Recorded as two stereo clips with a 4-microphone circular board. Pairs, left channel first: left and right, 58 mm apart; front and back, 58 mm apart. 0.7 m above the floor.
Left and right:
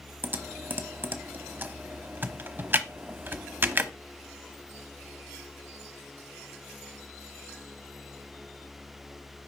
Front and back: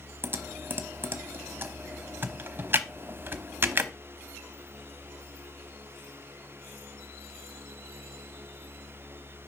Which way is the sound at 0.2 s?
135° right.